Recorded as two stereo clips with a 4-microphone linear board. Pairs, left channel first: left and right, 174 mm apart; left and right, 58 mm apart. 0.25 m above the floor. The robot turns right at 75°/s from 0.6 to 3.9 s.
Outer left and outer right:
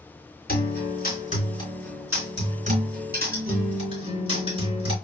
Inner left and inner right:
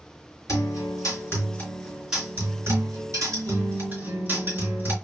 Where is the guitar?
75° left, 3 m; by 5.0 s 35° right, 3 m.